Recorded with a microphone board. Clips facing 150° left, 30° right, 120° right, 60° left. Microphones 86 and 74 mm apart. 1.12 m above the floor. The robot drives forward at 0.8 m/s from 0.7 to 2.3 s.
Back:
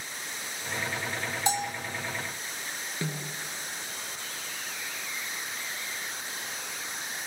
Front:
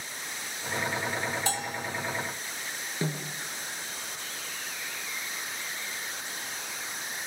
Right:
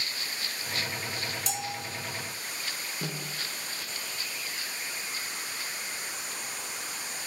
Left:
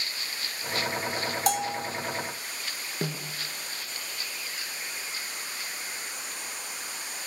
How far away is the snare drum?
About 6.5 m.